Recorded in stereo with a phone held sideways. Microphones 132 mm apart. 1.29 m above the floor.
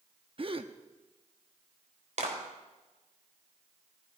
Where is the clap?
65° right (ahead or behind), 3.5 m.